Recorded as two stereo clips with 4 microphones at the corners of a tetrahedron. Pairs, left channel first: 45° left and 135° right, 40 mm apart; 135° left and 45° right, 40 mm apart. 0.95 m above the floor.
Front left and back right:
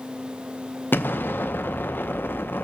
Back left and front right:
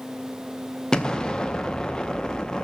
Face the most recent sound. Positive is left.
turn(degrees=65)